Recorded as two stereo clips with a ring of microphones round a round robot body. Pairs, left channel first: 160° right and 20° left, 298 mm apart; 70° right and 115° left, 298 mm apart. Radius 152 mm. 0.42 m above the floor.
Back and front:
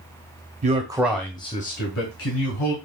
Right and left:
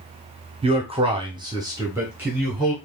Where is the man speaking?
60° left, 1.1 m; by 2.8 s 160° right, 1.7 m.